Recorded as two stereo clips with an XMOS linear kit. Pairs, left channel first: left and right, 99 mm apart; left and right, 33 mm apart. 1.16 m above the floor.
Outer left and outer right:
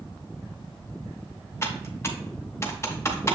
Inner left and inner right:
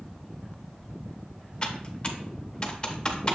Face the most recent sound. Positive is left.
turn(degrees=30)  # may be behind; listen again after turning